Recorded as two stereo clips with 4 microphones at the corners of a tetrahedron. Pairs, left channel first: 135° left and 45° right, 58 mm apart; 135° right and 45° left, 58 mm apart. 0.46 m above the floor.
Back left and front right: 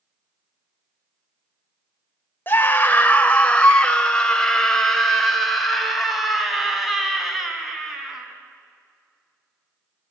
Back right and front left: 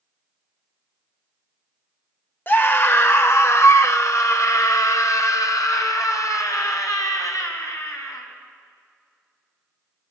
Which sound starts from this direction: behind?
A scream, at 2.5 s.